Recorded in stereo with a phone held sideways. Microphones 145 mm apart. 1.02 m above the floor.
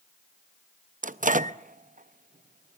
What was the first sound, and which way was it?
A microwave, 65° right (ahead or behind).